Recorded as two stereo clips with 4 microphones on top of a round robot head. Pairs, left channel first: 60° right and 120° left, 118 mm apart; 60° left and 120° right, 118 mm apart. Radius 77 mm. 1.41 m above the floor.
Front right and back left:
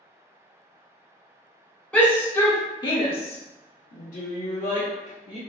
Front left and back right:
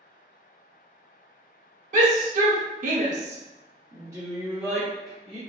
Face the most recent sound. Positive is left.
turn(degrees=-30)